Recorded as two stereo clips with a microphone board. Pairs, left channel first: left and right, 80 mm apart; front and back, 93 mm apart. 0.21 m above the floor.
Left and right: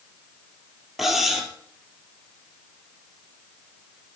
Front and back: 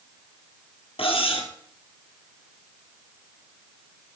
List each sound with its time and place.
1.0 s cutlery clinking: 5° right, 2.5 m